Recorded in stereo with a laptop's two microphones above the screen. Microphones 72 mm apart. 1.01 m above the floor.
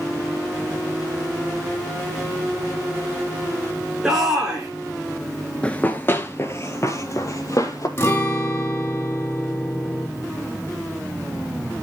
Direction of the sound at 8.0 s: 35° left (ahead or behind).